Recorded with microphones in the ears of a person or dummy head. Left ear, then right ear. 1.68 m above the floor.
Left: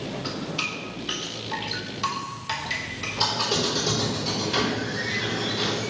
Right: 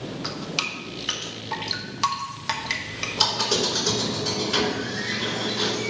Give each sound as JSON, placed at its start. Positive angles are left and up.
{"t": 0.2, "sound": "dripping", "side_deg": -45, "distance_m": 1.5}
{"t": 3.2, "sound": "a squeak", "side_deg": -50, "distance_m": 3.5}